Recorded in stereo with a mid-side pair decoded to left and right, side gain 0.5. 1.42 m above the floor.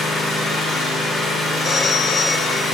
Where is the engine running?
60° left, 4.5 m.